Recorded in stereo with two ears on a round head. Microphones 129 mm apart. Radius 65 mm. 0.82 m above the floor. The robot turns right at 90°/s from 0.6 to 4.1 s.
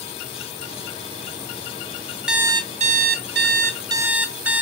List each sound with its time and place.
2.3 s an alarm clock: 175° right, 2.5 m; by 4.6 s 10° right, 2.5 m